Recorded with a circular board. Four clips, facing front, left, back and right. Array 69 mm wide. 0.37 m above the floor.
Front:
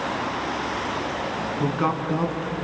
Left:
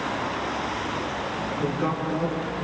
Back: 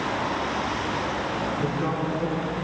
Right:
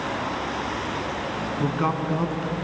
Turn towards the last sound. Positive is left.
turn(degrees=-40)